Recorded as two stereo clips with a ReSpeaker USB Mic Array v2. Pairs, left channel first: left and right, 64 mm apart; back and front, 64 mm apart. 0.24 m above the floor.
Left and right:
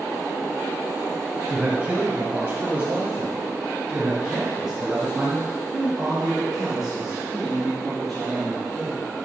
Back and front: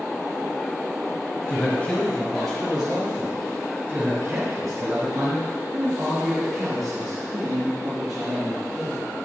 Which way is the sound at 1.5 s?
135° right.